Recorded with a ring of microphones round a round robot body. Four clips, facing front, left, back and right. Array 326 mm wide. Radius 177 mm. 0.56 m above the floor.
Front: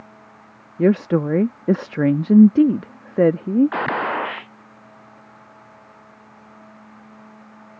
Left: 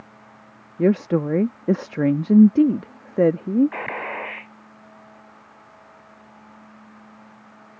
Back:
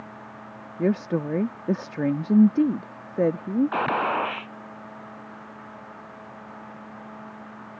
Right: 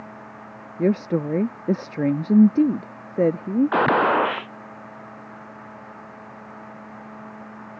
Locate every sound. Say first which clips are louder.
0.8 s a woman speaking: left 2 dB, front 7 dB; 20° left
3.7 s a gunshot: right 12 dB, front 1 dB; 85° right